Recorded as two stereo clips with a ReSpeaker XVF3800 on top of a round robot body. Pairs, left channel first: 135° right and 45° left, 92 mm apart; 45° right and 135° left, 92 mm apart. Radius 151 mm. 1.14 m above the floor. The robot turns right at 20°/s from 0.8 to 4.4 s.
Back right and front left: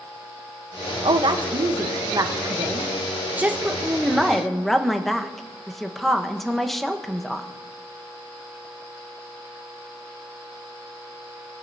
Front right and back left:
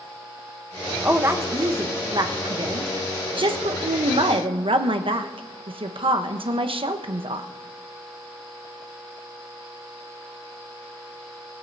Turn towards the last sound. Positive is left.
turn(degrees=135)